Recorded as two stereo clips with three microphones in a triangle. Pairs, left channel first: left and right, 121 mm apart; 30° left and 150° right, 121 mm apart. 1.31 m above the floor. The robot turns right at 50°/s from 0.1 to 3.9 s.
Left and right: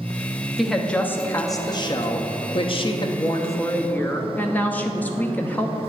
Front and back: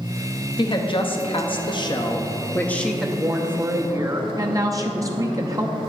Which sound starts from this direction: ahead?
A woman speaking, at 0.6 s.